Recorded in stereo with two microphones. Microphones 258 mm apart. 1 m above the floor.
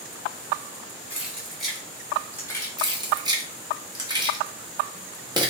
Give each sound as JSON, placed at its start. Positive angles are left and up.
{"t": 1.1, "sound": "keys jangling", "side_deg": -5, "distance_m": 2.0}
{"t": 2.8, "sound": "keys jangling", "side_deg": -15, "distance_m": 0.9}